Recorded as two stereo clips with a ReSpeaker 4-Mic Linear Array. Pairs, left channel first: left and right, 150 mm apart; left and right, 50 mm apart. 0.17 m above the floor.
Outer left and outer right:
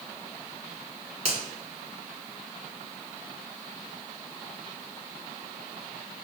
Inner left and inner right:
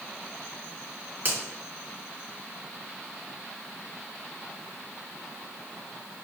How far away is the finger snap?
About 1.8 m.